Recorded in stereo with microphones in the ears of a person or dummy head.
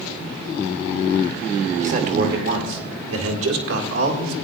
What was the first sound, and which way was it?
A man speaking, 30° right (ahead or behind).